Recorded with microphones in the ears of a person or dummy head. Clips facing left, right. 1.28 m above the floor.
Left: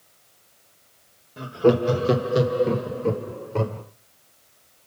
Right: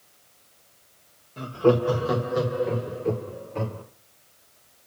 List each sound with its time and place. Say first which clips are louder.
1.4 s laughter: left 2 dB; 15° left (ahead or behind), 2.0 m; by 3.8 s 75° left (ahead or behind), 3.5 m